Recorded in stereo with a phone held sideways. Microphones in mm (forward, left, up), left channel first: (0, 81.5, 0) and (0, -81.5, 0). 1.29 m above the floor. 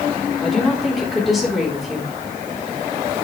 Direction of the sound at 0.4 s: Centre (ahead or behind).